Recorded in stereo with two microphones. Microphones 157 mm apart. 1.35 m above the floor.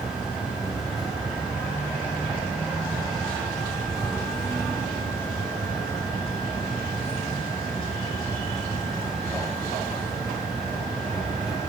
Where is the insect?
5° right (ahead or behind), 3 m.